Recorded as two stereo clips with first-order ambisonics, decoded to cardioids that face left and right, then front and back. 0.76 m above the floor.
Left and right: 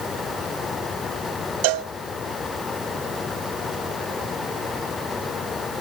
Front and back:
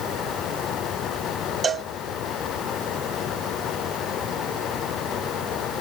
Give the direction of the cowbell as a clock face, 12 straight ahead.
4 o'clock.